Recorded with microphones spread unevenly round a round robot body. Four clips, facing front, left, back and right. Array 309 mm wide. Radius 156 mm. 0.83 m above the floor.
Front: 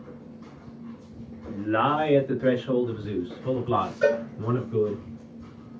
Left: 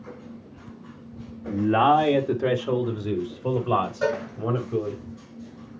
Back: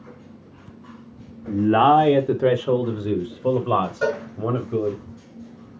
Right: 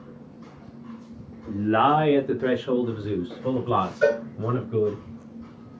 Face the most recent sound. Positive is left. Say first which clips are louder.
# right 4 dB, front 1 dB
turn(degrees=175)